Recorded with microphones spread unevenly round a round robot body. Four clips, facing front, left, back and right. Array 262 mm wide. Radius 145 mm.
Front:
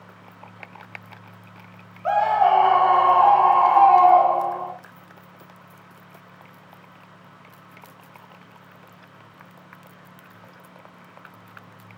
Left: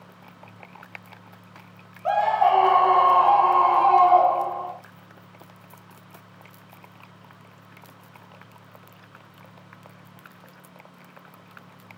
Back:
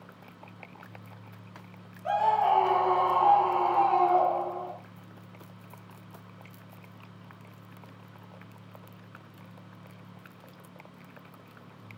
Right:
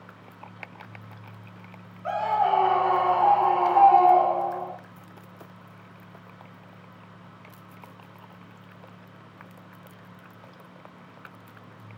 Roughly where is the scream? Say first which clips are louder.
Left 4 dB, front 6 dB; ahead.